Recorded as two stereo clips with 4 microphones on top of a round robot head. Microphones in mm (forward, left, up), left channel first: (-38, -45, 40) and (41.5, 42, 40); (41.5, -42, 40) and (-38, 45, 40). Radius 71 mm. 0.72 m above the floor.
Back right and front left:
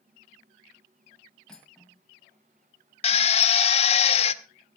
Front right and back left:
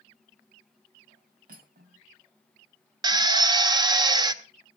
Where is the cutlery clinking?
145° left, 3 m.